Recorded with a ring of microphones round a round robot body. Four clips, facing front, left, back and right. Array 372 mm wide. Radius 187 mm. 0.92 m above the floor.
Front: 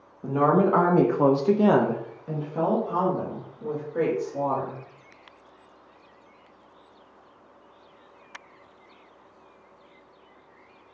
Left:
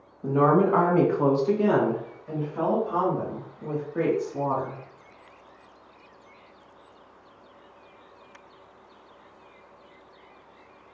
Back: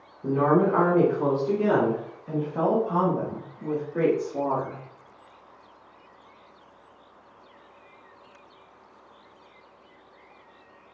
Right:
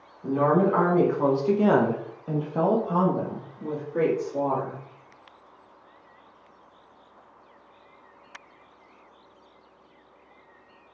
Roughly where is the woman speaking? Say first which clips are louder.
Left 1 dB, even; ahead left.